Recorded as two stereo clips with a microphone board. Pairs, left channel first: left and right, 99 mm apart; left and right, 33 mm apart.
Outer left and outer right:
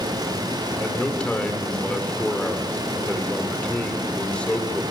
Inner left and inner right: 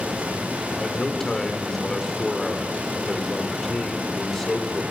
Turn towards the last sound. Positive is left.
turn(degrees=10)  # may be behind; listen again after turning